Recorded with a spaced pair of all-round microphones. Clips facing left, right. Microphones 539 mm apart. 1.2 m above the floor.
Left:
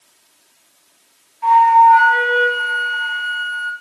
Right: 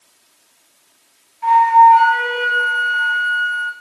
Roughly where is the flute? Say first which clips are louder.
Even; centre.